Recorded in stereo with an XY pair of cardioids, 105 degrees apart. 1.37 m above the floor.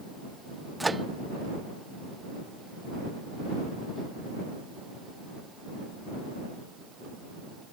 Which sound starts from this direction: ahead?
A microwave, at 0.8 s.